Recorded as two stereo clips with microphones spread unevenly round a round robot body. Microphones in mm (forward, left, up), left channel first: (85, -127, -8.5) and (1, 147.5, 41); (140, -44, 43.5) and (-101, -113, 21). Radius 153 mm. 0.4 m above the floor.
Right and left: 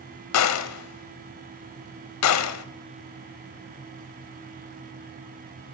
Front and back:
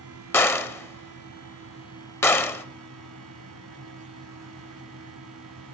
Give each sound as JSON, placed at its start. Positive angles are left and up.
{"t": 0.3, "sound": "a gunshot", "azimuth_deg": -65, "distance_m": 1.5}